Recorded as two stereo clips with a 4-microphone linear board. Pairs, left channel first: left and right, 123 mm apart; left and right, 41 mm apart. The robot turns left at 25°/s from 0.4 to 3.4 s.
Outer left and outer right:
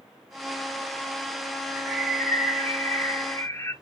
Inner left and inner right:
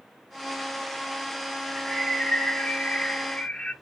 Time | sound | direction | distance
1.7 | a bird | 175° right | 0.6 m